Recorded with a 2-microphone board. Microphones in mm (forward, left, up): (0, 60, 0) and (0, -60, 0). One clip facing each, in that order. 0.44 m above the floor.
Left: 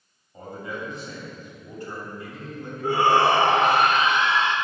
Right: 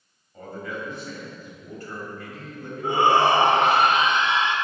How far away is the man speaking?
About 3 m.